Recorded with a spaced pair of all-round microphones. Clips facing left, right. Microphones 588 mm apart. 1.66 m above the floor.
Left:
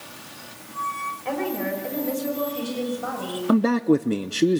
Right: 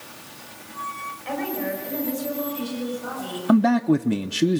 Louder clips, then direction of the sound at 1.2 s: Left 1 dB; 70° left (ahead or behind).